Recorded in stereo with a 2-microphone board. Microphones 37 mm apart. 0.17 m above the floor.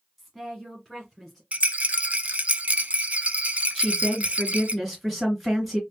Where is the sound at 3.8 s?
5° right (ahead or behind), 2.5 m.